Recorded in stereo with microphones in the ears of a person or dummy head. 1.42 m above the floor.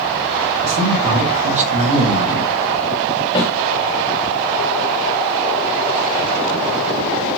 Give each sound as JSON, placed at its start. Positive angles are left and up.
{"t": 0.6, "sound": "a man speaking", "side_deg": -40, "distance_m": 1.0}
{"t": 3.4, "sound": "a snare drum", "side_deg": 35, "distance_m": 1.3}